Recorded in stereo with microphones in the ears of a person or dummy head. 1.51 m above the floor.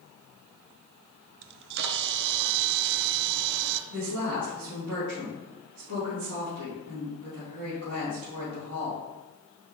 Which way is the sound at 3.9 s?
70° right (ahead or behind).